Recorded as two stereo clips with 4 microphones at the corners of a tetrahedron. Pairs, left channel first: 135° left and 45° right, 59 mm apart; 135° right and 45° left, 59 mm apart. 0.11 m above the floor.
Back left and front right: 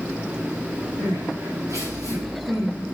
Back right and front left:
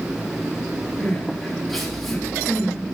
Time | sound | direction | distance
1.0 | crying | 45° right | 4.5 m